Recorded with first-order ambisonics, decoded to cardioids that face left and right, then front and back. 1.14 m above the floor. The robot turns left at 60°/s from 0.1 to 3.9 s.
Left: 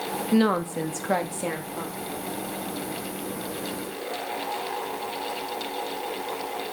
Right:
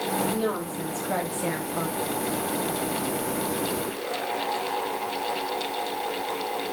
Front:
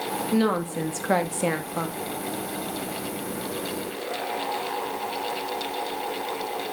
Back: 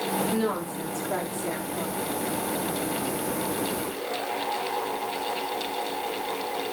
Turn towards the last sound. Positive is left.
turn(degrees=-140)